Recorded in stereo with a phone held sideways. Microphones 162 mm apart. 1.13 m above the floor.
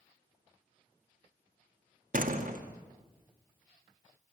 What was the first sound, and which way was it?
A door slam, 60° right (ahead or behind).